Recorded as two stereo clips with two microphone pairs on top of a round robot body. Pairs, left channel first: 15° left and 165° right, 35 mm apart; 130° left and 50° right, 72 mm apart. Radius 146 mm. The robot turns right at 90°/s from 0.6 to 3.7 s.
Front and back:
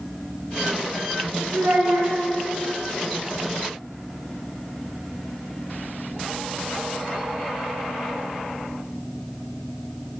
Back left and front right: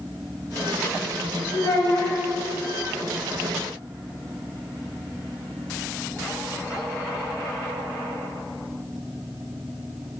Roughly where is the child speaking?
Behind.